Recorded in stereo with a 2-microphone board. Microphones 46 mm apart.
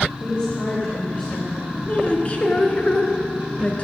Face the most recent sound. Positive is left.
turn(degrees=30)  # may be behind; listen again after turning